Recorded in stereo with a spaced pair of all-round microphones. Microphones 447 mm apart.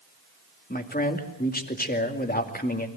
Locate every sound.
0.7 s a man speaking: 20° left (ahead or behind), 2 m